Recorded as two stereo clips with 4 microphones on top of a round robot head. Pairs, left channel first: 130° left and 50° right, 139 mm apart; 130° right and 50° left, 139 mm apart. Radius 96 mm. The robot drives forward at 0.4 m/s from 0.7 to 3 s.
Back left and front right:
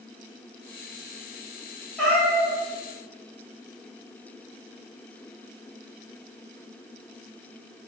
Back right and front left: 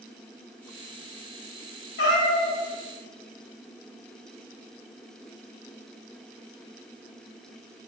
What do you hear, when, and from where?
2.0 s a cat meowing: 140° right, 0.7 m; by 2.6 s 150° right, 0.9 m